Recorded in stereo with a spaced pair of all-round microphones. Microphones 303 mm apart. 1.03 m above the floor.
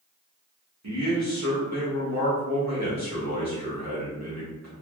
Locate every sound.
0.8 s a man speaking: 60° right (ahead or behind), 1.1 m